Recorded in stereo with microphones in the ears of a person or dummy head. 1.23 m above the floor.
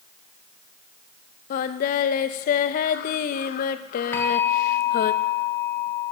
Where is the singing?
50° left (ahead or behind), 0.6 m.